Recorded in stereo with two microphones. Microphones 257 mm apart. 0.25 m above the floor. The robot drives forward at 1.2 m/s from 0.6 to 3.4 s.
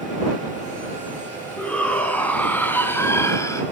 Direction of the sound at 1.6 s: 5° left (ahead or behind).